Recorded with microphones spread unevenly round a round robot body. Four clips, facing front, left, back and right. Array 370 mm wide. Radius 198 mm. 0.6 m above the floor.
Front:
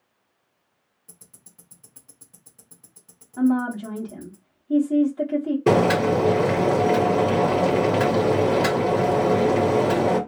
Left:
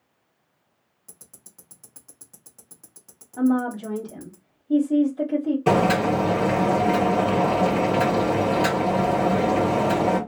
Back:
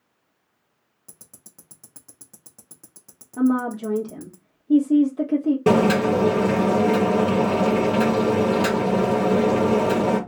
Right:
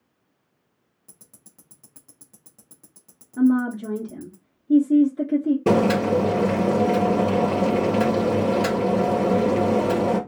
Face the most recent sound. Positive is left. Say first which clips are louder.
# even, even
turn(degrees=-130)